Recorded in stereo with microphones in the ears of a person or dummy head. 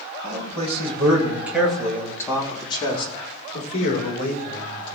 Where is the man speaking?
45° right (ahead or behind), 3 m; by 4.9 s 50° left (ahead or behind), 6 m.